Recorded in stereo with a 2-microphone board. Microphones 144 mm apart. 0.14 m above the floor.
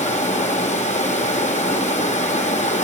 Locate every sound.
0.0 s running water: 55° left (ahead or behind), 0.9 m